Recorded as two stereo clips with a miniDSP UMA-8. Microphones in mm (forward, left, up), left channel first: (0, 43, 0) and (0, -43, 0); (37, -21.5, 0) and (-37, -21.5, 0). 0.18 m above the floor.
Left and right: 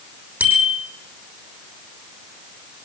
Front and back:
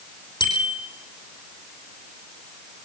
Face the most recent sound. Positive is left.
turn(degrees=-20)